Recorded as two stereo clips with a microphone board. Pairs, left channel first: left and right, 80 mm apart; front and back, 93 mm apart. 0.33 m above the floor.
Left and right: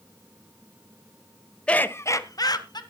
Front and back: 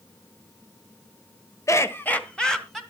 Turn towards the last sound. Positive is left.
turn(degrees=90)